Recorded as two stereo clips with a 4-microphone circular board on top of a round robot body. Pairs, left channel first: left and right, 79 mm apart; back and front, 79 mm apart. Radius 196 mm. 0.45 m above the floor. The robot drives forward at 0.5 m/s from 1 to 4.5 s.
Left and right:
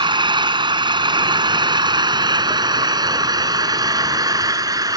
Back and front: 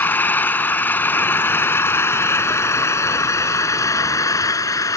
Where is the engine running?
115° right; by 5.0 s 130° right.